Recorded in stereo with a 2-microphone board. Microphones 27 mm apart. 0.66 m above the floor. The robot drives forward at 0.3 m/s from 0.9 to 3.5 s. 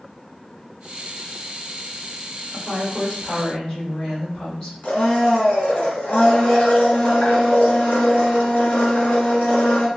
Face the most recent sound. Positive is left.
turn(degrees=65)  # may be behind; listen again after turning